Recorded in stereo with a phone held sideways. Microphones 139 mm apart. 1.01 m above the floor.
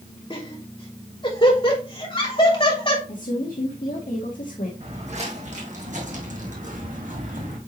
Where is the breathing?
No breathing in this recording.